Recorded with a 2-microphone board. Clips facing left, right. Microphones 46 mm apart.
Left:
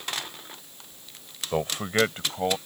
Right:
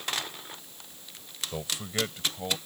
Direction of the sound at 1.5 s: 50° left (ahead or behind).